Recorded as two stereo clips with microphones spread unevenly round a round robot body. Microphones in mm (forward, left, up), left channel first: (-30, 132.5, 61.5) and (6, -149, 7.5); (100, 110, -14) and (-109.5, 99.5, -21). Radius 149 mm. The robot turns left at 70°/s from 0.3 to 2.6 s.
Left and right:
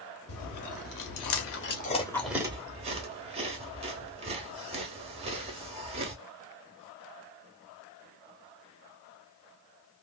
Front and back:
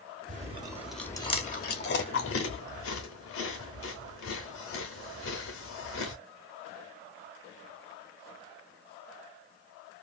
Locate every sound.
0.3 s chewing: 140° left, 1.0 m; by 6.2 s 25° right, 1.0 m